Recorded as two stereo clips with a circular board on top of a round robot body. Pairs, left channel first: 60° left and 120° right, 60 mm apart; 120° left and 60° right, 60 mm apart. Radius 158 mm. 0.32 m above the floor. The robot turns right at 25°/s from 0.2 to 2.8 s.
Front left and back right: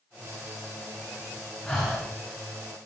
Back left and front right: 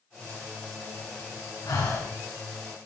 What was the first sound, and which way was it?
Breathing, 130° left.